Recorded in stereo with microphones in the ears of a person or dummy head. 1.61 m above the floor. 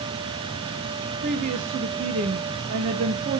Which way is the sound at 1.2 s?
40° right (ahead or behind).